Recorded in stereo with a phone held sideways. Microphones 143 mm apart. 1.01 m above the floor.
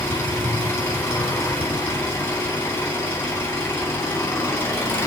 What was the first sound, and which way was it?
An engine running, 15° left (ahead or behind).